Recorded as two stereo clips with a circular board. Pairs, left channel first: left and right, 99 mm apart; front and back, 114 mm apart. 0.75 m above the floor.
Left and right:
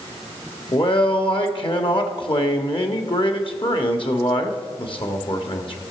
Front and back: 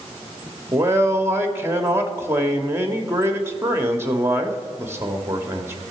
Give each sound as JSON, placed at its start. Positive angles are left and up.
{"t": 0.7, "sound": "a man speaking", "azimuth_deg": 110, "distance_m": 1.3}